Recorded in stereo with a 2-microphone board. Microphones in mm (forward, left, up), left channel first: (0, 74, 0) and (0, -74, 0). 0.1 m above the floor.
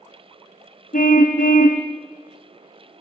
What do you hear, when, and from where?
0.9 s a car horn: 65° left (ahead or behind), 2.5 m